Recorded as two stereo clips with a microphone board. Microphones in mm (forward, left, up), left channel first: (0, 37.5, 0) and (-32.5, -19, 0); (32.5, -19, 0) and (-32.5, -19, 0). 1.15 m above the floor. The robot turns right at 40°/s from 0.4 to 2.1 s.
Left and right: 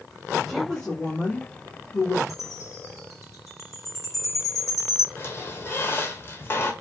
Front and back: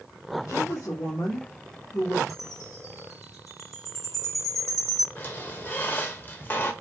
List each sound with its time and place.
0.5 s a woman speaking: 30° right, 1.7 m; by 2.2 s 35° left, 1.7 m
2.3 s a chime: 25° left, 2.0 m
5.2 s a squeak: 40° left, 1.0 m